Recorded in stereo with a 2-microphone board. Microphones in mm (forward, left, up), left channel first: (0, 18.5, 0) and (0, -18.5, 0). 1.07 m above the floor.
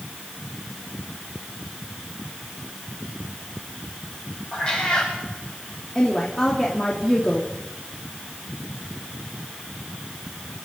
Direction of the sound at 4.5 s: 25° left (ahead or behind).